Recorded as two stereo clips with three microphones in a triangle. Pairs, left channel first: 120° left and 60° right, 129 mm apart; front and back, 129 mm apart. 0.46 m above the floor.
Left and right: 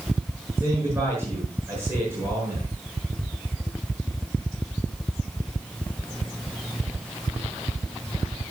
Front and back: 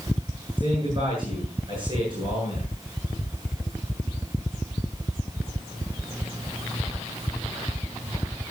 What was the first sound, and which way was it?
A man speaking, 135° right.